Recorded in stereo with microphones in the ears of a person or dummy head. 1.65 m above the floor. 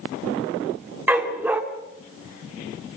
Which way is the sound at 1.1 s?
5° right (ahead or behind).